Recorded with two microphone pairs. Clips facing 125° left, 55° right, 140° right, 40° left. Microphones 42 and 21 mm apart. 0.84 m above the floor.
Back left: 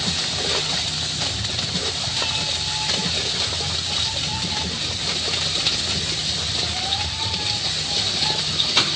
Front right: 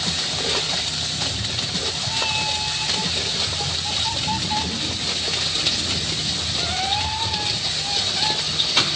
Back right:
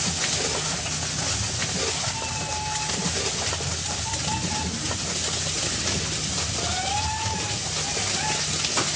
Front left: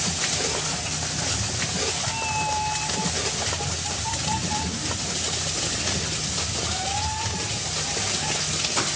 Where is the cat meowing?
5° left, 3 m; by 8.3 s 80° right, 3 m.